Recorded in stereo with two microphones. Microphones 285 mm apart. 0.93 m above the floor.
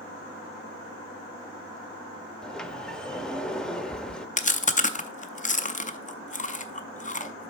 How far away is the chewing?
About 0.5 m.